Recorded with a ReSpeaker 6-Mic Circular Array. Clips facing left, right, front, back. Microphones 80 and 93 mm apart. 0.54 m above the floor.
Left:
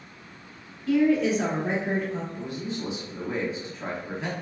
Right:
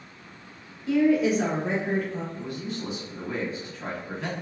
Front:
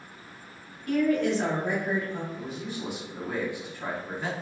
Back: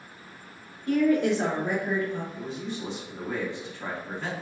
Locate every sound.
0.9 s a woman speaking: 140° right, 1.0 m; by 2.2 s 70° left, 1.0 m
2.3 s a man speaking: 60° left, 0.7 m